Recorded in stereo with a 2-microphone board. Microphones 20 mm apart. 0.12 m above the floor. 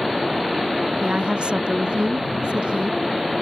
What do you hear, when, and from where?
1.0 s a woman speaking: 60° right (ahead or behind)